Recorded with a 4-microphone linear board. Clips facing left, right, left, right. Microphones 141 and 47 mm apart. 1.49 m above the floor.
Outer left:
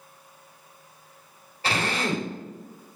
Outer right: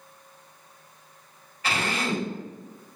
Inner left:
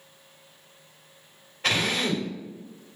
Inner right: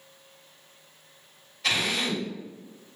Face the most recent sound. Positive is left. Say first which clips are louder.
# outer left 1 dB, inner left 2 dB
turn(degrees=35)  # may be behind; listen again after turning